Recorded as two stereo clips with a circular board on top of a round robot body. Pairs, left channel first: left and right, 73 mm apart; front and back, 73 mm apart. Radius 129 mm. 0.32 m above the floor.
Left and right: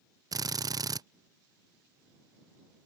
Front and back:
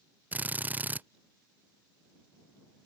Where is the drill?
115° right.